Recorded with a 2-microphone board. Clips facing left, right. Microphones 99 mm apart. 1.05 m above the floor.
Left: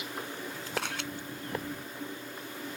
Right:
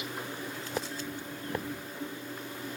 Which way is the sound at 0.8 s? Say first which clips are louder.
Left 2 dB; 80° left.